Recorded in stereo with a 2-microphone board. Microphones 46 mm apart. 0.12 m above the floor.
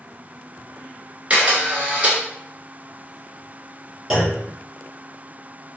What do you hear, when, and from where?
1.3 s a camera shutter: 30° right (ahead or behind), 1.3 m
4.1 s a clunk: 5° right (ahead or behind), 1.5 m